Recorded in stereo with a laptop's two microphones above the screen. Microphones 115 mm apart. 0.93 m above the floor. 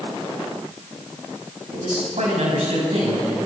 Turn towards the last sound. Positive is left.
turn(degrees=-85)